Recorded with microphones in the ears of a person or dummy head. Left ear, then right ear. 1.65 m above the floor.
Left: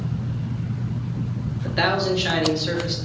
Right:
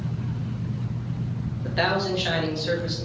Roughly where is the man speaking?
Centre.